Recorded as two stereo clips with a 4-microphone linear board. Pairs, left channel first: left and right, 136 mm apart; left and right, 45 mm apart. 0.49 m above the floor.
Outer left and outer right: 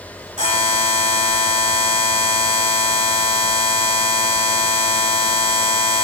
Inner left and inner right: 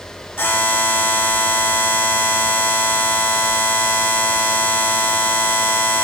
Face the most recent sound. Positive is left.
turn(degrees=65)  # may be behind; listen again after turning